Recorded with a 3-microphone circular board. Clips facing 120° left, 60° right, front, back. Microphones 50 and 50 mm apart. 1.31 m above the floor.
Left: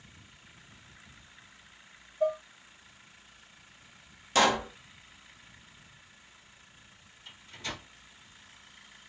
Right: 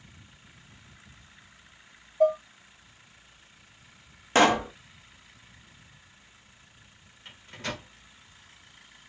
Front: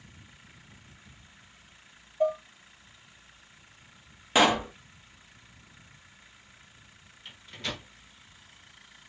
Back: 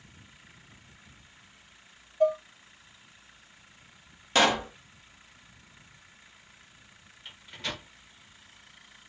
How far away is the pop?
About 0.8 m.